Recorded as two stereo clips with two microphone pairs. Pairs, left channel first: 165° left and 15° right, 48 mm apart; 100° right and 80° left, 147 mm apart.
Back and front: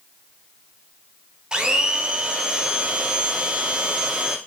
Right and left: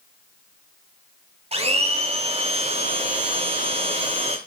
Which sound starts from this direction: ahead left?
A blender, at 1.5 s.